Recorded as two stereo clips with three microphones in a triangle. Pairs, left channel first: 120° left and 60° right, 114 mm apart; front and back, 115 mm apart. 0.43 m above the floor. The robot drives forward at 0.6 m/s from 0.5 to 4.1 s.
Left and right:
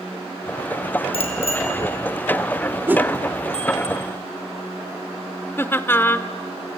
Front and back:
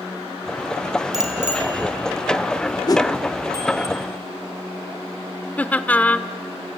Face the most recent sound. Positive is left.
turn(degrees=65)